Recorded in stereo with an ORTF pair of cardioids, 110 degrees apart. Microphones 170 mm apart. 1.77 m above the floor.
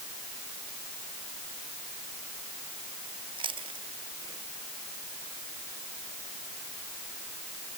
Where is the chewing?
30° right.